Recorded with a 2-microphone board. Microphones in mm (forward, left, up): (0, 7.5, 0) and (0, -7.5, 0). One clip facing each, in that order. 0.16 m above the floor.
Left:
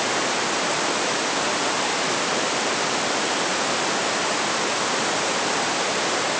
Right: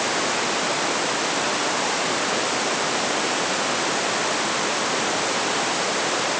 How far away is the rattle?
No rattle in this recording.